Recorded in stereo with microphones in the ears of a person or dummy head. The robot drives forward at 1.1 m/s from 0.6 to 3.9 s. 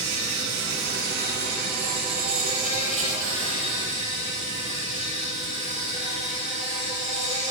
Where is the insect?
65° right (ahead or behind), 4.5 m; by 7.5 s 40° right (ahead or behind), 6.5 m.